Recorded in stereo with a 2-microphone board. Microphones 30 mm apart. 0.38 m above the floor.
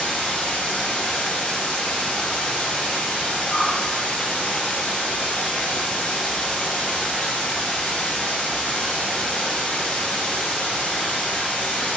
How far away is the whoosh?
About 1.6 m.